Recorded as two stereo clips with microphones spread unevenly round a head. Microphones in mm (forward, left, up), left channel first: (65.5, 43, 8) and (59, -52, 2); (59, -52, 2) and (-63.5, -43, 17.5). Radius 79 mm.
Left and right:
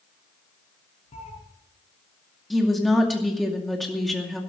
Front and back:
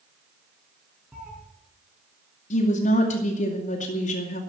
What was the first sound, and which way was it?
A cat meowing, 95° left.